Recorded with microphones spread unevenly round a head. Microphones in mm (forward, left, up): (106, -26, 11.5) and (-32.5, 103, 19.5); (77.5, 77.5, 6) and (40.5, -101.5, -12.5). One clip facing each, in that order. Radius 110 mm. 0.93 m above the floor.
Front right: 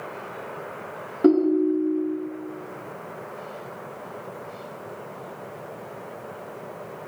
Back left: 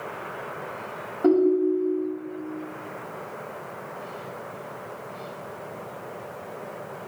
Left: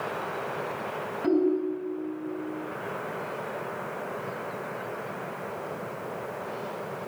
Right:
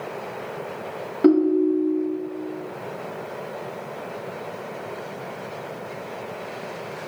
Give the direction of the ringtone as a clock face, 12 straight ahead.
3 o'clock.